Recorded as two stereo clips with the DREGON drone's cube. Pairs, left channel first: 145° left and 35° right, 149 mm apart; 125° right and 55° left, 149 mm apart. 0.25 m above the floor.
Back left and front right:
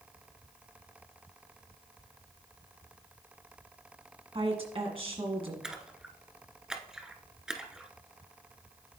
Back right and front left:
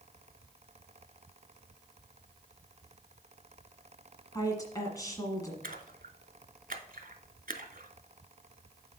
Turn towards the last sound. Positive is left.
turn(degrees=50)